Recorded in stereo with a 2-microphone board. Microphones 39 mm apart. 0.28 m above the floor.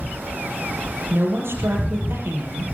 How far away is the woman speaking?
About 6.5 m.